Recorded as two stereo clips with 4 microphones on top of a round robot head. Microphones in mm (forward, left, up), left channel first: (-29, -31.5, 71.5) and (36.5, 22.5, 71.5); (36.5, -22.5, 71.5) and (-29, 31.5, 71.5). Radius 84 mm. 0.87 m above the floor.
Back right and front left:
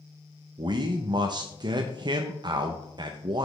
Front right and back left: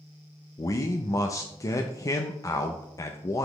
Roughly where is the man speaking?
Ahead.